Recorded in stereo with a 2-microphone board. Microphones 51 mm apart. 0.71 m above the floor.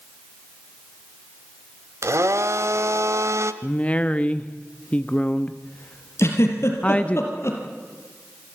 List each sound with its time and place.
2.0 s a blender: 70° right (ahead or behind), 1.1 m
3.6 s a woman speaking: 25° left (ahead or behind), 0.8 m
6.2 s a giggle: 60° left (ahead or behind), 4.5 m